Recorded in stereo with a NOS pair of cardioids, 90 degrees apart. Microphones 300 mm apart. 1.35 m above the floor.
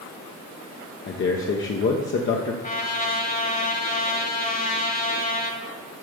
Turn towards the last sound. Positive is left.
turn(degrees=25)